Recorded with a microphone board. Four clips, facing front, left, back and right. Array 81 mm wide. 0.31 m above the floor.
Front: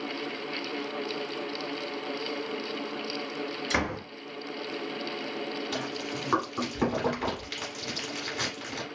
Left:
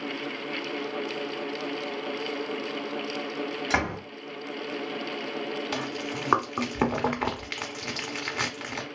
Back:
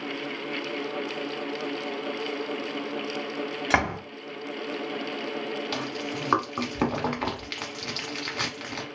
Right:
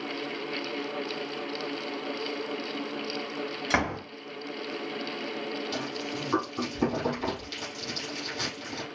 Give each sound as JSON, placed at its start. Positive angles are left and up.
{"t": 3.7, "sound": "a door slam", "azimuth_deg": -175, "distance_m": 1.6}
{"t": 5.7, "sound": "chewing", "azimuth_deg": 115, "distance_m": 1.0}